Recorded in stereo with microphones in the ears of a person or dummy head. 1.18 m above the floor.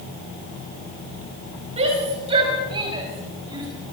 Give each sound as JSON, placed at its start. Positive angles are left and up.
{"t": 1.8, "sound": "a shout", "side_deg": -35, "distance_m": 5.5}